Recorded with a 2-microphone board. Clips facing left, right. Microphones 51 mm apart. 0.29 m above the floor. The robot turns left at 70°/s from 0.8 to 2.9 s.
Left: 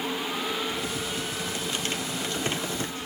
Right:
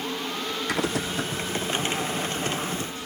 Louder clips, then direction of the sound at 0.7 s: Right 4 dB; 85° right.